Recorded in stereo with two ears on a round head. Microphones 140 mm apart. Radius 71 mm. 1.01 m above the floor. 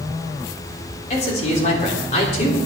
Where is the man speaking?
45° left (ahead or behind), 3.5 m.